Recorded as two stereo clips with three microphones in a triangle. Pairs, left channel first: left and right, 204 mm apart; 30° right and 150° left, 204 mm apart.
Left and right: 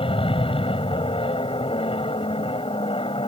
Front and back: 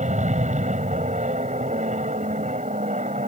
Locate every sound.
0.0 s an aircraft: 135° left